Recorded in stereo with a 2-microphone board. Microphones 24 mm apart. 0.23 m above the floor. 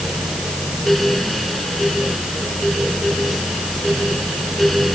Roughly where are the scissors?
No scissors in this recording.